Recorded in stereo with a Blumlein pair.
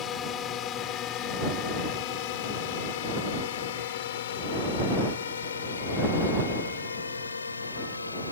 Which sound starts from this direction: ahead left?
A drone, at 0.0 s.